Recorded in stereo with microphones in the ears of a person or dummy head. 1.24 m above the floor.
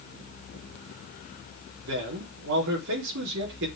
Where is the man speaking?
75° right (ahead or behind), 4 m.